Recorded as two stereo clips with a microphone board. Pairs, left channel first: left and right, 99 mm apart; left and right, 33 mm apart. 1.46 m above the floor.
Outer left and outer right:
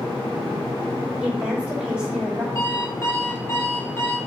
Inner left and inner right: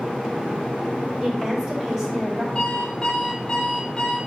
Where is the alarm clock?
25° left (ahead or behind), 1.8 m.